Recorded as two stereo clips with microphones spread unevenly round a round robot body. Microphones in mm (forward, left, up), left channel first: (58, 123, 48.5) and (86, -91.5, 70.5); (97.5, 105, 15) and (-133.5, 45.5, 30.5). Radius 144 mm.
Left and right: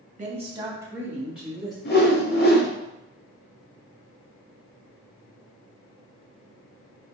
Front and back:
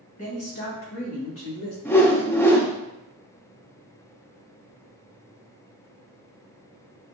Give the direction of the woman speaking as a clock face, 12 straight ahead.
1 o'clock.